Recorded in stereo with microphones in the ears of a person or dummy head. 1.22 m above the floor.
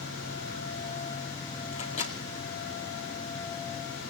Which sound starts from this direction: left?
A microwave, at 1.7 s.